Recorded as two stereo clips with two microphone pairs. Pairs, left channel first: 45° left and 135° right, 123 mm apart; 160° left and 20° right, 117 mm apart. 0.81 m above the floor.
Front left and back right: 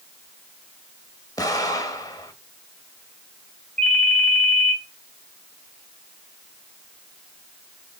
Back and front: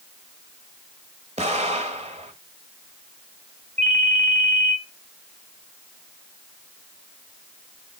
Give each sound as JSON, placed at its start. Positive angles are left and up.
{"t": 1.4, "sound": "an explosion", "azimuth_deg": -15, "distance_m": 1.3}
{"t": 3.8, "sound": "a ringtone", "azimuth_deg": -40, "distance_m": 3.5}